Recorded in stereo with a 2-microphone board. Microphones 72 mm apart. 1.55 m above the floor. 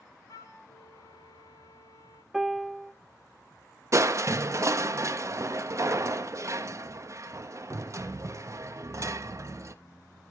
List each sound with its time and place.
0.3 s a flute: 45° left (ahead or behind), 1.2 m
2.3 s a piano: centre (ahead or behind), 0.5 m
3.9 s crushing: 45° right (ahead or behind), 0.7 m